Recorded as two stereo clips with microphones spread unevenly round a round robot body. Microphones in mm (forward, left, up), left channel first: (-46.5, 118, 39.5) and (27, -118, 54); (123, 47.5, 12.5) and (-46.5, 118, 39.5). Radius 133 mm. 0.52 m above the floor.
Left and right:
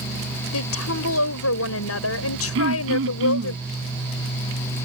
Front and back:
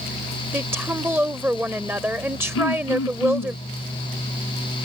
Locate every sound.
0.5 s a woman speaking: 75° left
2.5 s throat clearing: 25° right